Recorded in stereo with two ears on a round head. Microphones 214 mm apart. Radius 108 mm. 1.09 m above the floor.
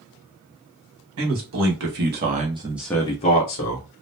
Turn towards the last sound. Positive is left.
turn(degrees=50)  # may be behind; listen again after turning